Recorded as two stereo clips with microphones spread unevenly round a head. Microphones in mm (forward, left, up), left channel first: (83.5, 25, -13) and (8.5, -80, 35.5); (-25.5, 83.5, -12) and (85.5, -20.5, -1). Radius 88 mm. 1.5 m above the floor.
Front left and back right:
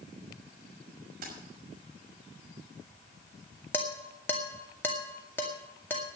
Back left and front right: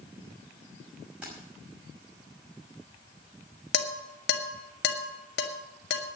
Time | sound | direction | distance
1.2 | keys jangling | 125° right | 6 m
3.7 | dishes clattering | 140° left | 1.8 m